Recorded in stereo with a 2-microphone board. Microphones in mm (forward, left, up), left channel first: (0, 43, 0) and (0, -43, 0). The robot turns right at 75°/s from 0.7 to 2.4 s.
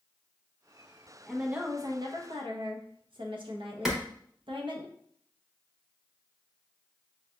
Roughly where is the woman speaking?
Behind.